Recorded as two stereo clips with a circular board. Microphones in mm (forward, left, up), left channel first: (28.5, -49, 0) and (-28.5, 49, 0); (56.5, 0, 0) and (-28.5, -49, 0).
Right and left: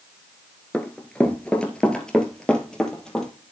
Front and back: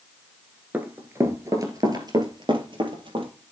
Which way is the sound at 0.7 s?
115° right.